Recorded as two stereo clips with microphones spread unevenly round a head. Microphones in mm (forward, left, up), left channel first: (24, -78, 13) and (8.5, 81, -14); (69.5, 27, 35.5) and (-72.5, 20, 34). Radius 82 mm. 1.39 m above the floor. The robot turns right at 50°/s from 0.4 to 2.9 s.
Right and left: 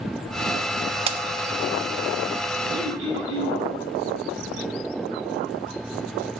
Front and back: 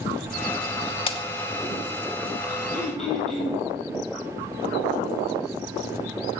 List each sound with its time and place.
1.1 s breaking glass: 45° left, 1.0 m; by 1.2 s 50° left, 1.0 m
2.7 s throat clearing: 80° left, 7 m; by 3.6 s 90° left, 7 m